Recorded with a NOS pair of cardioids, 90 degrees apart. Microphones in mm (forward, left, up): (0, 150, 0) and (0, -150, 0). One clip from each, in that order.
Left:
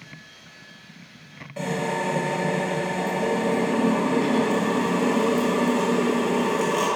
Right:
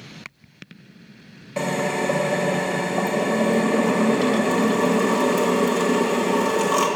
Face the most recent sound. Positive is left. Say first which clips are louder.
# right 3 dB
turn(degrees=-55)